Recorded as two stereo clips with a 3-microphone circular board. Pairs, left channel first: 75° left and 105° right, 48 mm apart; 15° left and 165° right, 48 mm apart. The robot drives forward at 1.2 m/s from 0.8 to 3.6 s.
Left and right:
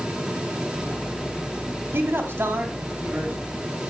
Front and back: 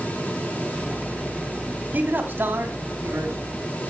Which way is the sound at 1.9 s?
125° right.